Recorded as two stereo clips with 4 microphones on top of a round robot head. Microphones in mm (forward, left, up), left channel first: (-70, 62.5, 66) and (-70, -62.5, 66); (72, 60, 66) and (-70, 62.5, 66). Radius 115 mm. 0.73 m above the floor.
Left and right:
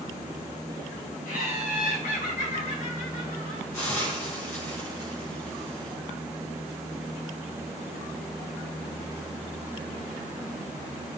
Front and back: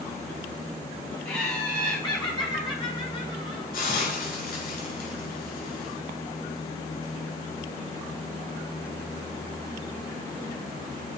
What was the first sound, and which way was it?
Laughter, 65° left.